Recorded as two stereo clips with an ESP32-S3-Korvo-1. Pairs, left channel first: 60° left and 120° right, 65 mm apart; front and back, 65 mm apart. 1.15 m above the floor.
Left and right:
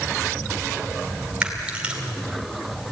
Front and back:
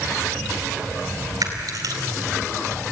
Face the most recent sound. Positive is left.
turn(degrees=165)